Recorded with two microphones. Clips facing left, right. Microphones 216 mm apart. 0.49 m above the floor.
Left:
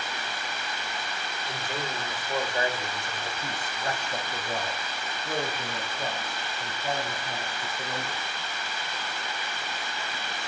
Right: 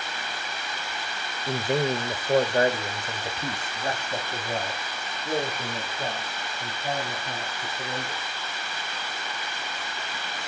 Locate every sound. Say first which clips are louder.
1.5 s a man speaking: right 11 dB; 60° right (ahead or behind), 1.6 m; by 8.2 s 5° right (ahead or behind), 6.5 m